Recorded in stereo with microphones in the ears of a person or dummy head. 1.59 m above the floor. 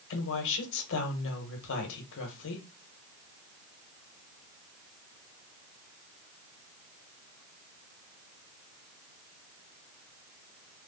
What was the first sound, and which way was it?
A woman speaking, 65° left (ahead or behind).